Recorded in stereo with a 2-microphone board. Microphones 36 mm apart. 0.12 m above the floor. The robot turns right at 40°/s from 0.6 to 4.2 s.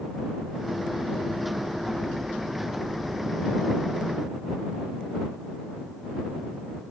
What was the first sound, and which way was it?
Only background noise.